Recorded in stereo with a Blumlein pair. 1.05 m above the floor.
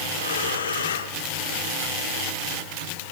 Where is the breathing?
70° left, 1.4 m.